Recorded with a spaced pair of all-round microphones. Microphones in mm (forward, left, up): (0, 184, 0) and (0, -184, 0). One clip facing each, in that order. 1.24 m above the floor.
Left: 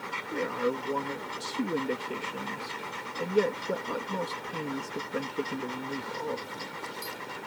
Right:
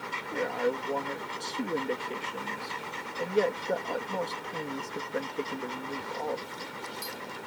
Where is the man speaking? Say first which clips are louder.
Even; 15° left (ahead or behind).